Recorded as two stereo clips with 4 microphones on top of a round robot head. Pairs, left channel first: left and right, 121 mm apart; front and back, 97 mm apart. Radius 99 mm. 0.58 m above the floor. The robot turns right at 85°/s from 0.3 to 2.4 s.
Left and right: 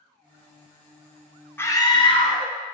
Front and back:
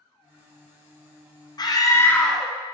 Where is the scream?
20° left, 1.3 m; by 2.5 s 90° left, 1.3 m.